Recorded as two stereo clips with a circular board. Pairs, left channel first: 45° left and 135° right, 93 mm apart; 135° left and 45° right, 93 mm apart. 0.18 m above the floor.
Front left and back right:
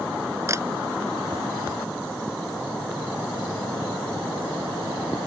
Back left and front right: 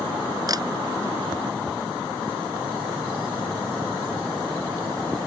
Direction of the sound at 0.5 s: 80° right.